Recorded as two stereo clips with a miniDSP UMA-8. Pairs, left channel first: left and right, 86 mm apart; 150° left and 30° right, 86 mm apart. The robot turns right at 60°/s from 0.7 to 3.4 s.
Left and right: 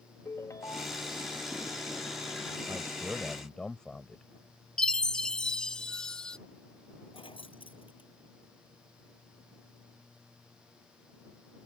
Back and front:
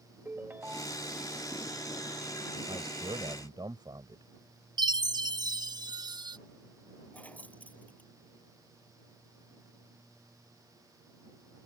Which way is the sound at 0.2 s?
35° left.